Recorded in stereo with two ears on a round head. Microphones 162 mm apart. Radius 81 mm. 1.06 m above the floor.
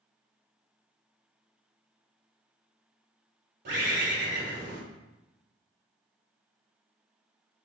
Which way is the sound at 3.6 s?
65° right (ahead or behind).